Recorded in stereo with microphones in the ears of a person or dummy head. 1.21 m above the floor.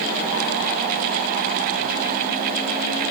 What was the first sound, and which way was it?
Only background noise.